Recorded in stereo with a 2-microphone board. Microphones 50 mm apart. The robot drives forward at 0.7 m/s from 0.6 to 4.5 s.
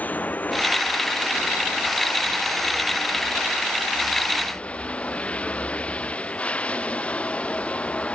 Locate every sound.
0.0 s running water: 35° left (ahead or behind); by 8.2 s 25° left (ahead or behind)